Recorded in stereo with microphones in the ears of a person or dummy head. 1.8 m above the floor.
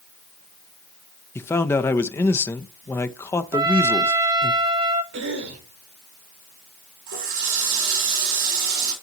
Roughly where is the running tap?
Right.